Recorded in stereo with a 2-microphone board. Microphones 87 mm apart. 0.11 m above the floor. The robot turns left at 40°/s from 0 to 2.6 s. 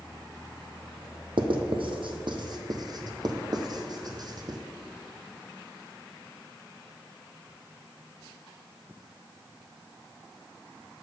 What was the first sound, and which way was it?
Writing, 75° right (ahead or behind).